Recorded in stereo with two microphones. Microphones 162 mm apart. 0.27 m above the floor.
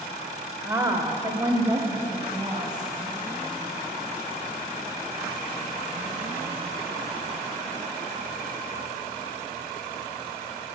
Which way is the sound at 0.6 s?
15° right (ahead or behind).